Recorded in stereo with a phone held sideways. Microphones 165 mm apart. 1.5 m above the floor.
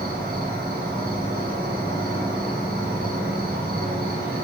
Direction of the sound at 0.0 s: 70° right (ahead or behind).